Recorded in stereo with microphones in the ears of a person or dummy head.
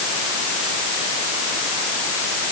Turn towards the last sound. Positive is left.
No sound to turn to.